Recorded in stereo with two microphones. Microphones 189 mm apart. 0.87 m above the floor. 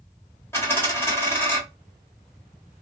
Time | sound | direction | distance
0.5 | a dropped coin | 15° left (ahead or behind) | 1.1 m